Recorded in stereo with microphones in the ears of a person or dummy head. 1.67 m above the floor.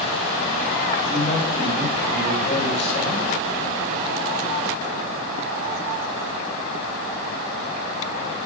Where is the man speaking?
30° left (ahead or behind), 7.5 m.